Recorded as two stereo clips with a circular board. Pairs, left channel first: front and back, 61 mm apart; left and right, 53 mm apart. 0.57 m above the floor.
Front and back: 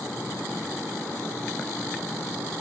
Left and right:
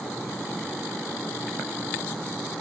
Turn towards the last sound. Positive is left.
No sound to turn to.